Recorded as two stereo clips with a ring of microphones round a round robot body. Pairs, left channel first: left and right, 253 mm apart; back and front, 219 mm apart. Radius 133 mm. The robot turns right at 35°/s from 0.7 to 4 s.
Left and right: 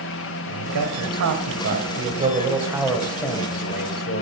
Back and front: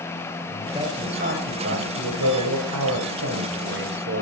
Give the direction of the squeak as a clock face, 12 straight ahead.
I don't hear a squeak.